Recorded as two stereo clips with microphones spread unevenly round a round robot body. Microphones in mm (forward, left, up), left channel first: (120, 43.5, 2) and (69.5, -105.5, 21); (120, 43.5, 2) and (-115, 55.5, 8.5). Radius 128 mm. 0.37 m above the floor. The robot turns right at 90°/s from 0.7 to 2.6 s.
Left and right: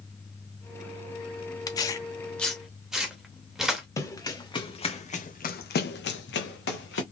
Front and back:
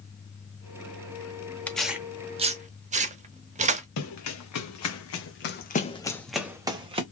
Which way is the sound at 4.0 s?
Straight ahead.